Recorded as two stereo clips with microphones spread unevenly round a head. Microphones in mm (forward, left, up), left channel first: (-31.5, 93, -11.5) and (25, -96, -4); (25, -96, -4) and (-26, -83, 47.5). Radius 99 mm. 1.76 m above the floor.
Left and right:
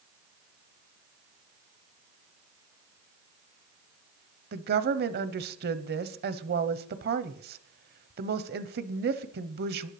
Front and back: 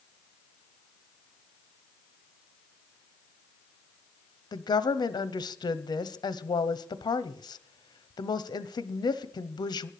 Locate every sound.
4.5 s a woman speaking: 35° right, 0.8 m